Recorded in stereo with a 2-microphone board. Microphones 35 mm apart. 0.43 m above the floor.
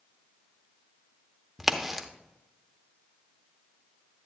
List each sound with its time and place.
1.6 s a crack: 10° right (ahead or behind), 0.8 m